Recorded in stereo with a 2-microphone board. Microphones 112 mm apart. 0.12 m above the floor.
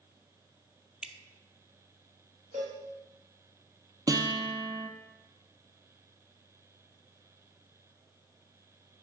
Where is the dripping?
10° right (ahead or behind), 0.6 m.